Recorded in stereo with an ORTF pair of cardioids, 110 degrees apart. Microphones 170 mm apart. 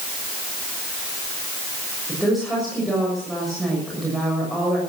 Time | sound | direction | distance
2.1 | a woman speaking | straight ahead | 6.5 m